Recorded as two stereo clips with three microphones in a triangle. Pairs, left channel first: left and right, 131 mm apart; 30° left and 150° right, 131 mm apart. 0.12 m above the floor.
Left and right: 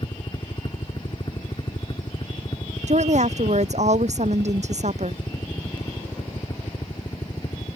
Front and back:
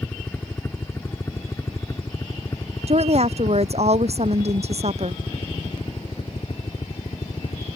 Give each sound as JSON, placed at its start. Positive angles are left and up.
{"t": 0.0, "sound": "a helicopter", "azimuth_deg": 95}
{"t": 2.9, "sound": "a woman speaking", "azimuth_deg": -115}